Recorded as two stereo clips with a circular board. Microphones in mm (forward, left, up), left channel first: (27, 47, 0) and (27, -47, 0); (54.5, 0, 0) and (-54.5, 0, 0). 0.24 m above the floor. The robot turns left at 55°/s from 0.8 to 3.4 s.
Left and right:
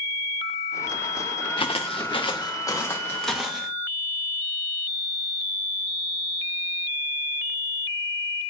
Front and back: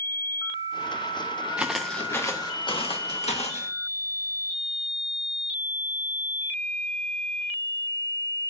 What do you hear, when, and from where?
1.6 s footsteps: 100° left, 0.9 m; by 3.7 s 5° right, 2 m